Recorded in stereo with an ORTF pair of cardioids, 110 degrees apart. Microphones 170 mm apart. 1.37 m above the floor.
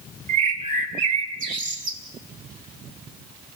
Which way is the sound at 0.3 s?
55° right.